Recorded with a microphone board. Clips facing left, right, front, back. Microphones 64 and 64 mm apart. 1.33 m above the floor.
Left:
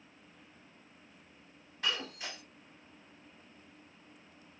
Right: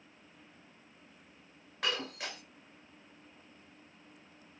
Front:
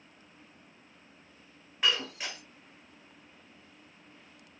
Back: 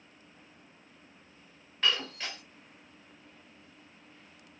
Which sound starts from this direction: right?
Breaking glass, at 1.8 s.